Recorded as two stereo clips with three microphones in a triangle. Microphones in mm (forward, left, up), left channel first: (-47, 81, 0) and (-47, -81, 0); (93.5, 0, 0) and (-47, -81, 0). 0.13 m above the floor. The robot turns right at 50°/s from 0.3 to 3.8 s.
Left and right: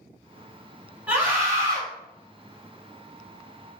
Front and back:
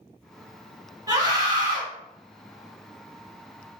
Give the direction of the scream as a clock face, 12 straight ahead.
5 o'clock.